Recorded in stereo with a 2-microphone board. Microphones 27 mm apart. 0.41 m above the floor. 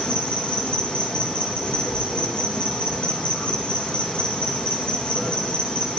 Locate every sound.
0.0 s an insect: 40° left (ahead or behind), 3 m